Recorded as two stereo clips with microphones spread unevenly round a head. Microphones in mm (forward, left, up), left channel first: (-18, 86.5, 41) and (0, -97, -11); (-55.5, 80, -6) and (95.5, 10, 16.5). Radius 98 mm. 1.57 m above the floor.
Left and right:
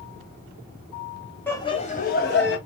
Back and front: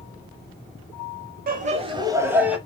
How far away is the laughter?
About 0.8 m.